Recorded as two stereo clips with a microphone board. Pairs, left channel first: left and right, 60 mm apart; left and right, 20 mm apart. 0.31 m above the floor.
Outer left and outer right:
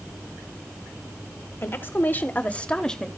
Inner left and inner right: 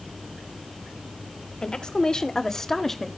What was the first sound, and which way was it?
A woman speaking, 40° left (ahead or behind).